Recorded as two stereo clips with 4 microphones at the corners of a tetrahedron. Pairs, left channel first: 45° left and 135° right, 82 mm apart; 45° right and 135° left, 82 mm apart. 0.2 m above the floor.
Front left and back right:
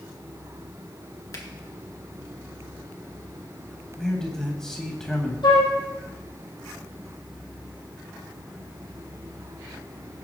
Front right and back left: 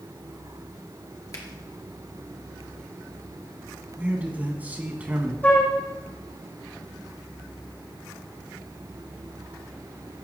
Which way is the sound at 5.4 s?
25° left.